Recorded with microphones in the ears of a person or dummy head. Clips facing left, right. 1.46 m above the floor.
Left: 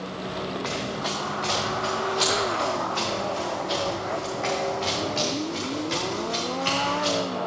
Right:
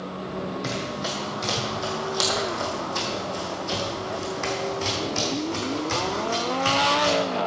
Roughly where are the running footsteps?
Right.